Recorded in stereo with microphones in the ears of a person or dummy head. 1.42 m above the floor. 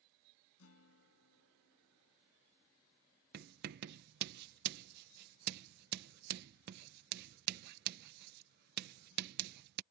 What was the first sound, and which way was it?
A guitar, 85° left.